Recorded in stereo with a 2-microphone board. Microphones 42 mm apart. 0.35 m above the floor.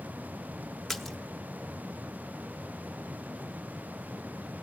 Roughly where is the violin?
No violin in this recording.